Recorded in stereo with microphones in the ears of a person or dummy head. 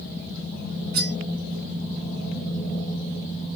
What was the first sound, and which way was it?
Cutlery clinking, 45° right (ahead or behind).